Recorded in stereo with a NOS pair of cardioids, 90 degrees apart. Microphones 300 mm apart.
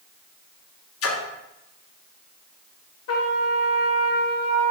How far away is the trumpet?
About 1.0 m.